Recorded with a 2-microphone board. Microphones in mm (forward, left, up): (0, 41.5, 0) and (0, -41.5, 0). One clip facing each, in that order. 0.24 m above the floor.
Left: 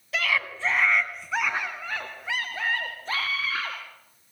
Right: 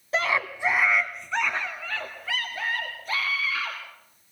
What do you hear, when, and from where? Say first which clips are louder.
0.1 s a scream: right 2 dB; 30° right (ahead or behind), 1.5 m; by 3.8 s 35° left (ahead or behind), 4 m